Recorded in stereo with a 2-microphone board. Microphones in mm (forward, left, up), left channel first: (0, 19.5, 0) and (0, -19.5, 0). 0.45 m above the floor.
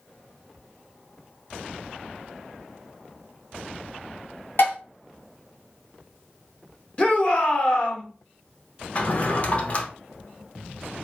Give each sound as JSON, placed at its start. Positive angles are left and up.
{"t": 4.6, "sound": "dishes clattering", "side_deg": 70, "distance_m": 1.5}
{"t": 7.0, "sound": "a shout", "side_deg": 30, "distance_m": 0.9}
{"t": 8.9, "sound": "a drawer", "side_deg": 35, "distance_m": 0.6}